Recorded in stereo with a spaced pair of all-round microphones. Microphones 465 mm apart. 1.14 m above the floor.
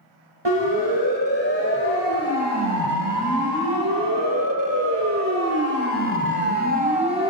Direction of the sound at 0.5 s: 65° right (ahead or behind).